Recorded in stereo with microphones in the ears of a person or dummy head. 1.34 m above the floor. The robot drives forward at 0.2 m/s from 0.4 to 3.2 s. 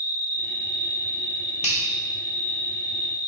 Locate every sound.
0.0 s an insect: 55° right (ahead or behind), 1.4 m; by 3.3 s 40° right (ahead or behind), 1.7 m
1.6 s a finger snap: 30° left (ahead or behind), 0.8 m